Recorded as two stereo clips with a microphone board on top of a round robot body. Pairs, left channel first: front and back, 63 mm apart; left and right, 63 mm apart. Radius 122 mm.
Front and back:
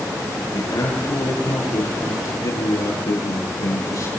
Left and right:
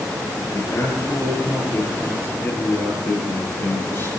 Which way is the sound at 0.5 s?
35° left.